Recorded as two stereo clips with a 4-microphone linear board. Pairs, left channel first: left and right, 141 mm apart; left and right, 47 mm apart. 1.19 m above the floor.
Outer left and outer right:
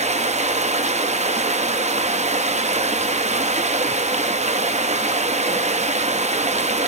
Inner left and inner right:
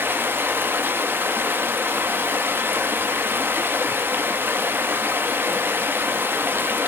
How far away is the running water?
About 0.7 m.